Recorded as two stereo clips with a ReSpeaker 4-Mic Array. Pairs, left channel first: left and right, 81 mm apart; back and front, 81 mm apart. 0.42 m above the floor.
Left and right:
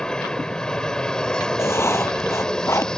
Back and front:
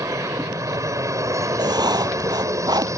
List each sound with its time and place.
0.0 s an aircraft: 15° left
1.6 s writing: 35° left